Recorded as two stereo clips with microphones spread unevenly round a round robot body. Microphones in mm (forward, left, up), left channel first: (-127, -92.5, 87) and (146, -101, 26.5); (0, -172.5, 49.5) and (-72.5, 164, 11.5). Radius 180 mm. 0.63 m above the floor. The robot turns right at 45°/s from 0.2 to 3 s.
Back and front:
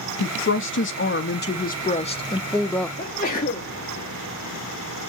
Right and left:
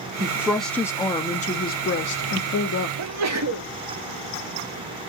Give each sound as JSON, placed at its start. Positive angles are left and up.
{"t": 0.2, "sound": "a woman speaking", "azimuth_deg": 165, "distance_m": 0.6}
{"t": 3.0, "sound": "a sneeze", "azimuth_deg": 110, "distance_m": 0.8}